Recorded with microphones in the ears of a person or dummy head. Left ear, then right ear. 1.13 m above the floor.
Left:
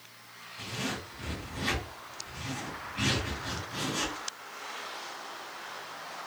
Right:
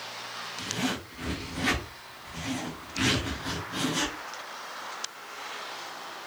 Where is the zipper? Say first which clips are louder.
Right 3 dB; 40° right (ahead or behind), 1.1 m.